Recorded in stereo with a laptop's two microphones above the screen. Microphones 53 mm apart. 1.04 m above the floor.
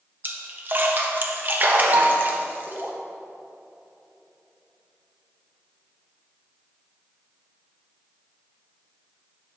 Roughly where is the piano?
Right.